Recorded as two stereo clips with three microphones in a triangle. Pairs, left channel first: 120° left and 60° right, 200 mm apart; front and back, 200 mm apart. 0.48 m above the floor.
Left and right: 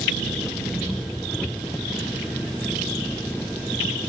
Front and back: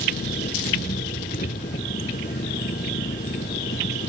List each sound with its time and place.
0.0 s an engine running: 35° left